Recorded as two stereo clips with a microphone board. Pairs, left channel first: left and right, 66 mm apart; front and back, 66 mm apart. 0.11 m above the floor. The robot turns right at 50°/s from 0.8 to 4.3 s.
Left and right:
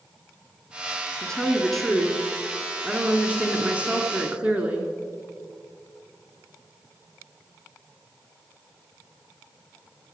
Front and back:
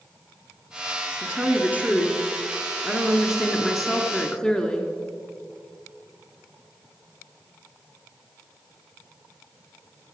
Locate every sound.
1.2 s a woman speaking: 145° left, 1.4 m; by 4.9 s 60° right, 1.4 m